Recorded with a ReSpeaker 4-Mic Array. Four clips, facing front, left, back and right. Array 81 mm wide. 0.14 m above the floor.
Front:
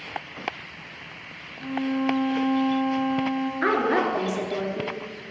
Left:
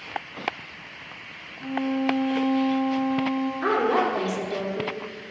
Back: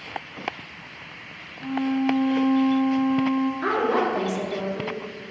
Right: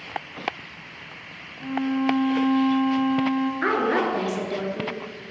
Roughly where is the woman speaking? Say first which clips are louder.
Left 2 dB, front 4 dB; ahead right.